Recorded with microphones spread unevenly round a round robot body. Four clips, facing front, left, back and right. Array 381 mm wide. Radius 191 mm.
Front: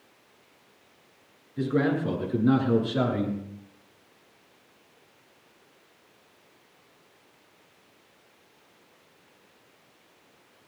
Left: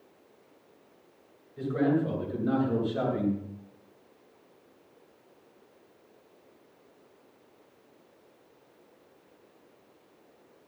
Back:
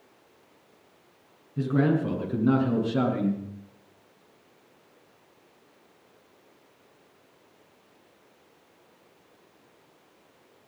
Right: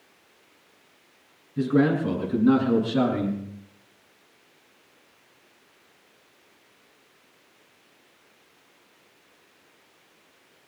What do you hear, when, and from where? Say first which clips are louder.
1.6 s a man speaking: right 5 dB, back 1 dB; 120° right, 8.5 m; by 3.4 s 130° right, 8 m